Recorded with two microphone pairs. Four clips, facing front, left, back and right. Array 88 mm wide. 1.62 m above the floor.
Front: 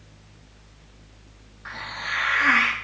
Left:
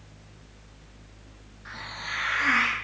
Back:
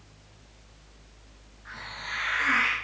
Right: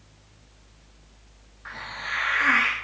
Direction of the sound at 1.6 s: 30° right.